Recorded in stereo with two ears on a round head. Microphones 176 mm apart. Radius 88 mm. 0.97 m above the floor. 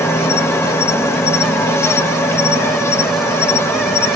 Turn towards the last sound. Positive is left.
turn(degrees=15)  # may be behind; listen again after turning